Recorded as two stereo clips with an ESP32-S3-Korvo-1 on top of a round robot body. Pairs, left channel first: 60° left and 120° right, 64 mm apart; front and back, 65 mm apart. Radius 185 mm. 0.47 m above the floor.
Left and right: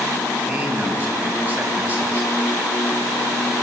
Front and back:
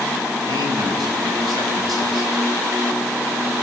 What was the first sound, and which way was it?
A man speaking, 175° left.